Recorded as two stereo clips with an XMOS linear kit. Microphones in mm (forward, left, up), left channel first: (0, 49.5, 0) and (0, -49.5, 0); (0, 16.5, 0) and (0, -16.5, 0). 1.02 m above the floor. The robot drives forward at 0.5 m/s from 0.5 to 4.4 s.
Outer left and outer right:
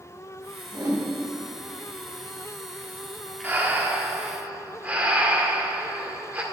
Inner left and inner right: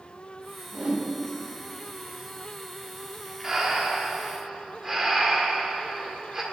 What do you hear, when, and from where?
0.7 s a whoosh: 40° right (ahead or behind), 2.5 m
3.4 s breathing: 20° right (ahead or behind), 1.4 m; by 6.4 s 15° right (ahead or behind), 1.9 m